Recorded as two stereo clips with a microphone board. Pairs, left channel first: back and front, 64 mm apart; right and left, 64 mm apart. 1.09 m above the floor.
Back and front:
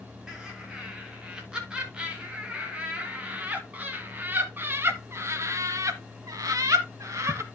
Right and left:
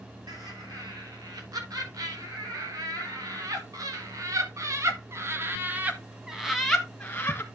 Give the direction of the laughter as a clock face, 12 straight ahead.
9 o'clock.